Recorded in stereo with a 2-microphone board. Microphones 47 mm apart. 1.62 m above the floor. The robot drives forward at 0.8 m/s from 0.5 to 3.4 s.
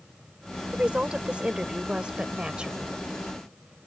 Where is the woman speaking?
25° right (ahead or behind); by 3.0 s 20° right (ahead or behind).